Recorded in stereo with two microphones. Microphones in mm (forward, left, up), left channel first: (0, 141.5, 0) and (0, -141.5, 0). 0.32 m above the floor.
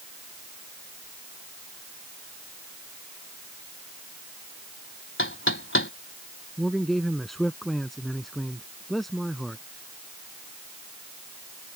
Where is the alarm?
No alarm in this recording.